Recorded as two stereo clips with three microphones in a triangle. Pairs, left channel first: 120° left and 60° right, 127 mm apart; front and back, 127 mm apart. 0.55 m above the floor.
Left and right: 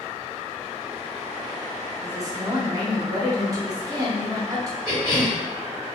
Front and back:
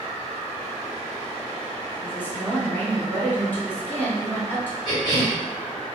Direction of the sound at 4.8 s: 15° right.